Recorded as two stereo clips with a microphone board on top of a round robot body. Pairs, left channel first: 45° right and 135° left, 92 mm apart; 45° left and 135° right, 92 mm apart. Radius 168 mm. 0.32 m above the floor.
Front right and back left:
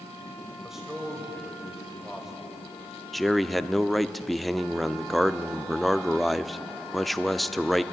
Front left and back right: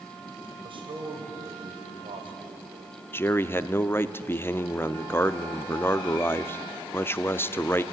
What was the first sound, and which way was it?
A man speaking, 140° right.